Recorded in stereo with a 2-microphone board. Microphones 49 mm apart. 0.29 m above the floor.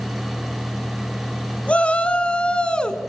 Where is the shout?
25° left (ahead or behind), 2.5 m; by 3.0 s 15° left (ahead or behind), 3.5 m.